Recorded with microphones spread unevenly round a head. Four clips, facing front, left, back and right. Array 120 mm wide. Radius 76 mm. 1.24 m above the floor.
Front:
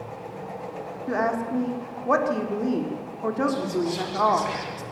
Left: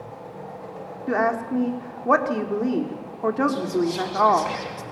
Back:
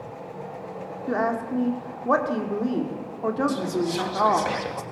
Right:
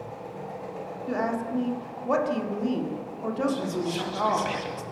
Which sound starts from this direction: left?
A woman speaking, at 1.1 s.